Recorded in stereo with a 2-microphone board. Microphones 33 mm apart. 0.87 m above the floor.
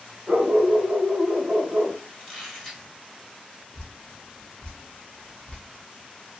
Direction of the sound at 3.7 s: 35° left (ahead or behind).